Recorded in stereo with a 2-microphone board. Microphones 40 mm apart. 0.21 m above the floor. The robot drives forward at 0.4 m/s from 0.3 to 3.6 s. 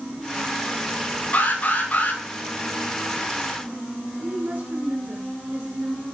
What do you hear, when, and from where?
1.3 s an alarm: 45° left (ahead or behind), 7 m
4.2 s a woman speaking: 50° right (ahead or behind), 3 m